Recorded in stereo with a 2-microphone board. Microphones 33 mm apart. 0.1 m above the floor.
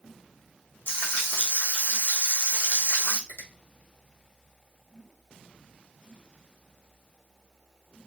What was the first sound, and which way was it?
Frying, 70° left (ahead or behind).